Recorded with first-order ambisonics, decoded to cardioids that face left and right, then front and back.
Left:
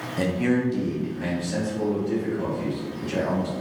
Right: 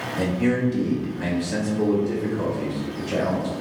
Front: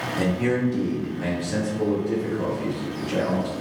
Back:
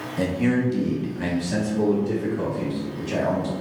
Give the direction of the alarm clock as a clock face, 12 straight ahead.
No alarm clock in this recording.